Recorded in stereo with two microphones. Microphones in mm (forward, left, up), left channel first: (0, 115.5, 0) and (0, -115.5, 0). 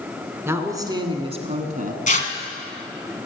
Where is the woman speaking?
10° right (ahead or behind), 1.8 m; by 2.0 s 40° right (ahead or behind), 1.6 m.